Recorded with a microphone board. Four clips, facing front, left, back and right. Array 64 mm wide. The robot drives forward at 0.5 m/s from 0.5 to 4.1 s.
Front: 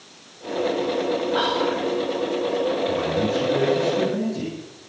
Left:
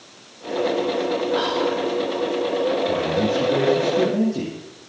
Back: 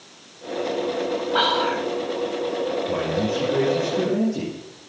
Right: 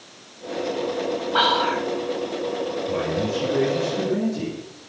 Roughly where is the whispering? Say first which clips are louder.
Right 1 dB, back 4 dB; behind right.